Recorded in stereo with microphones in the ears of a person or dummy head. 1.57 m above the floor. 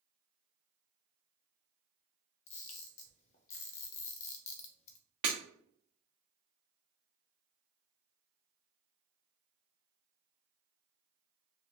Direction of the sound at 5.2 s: 25° right (ahead or behind).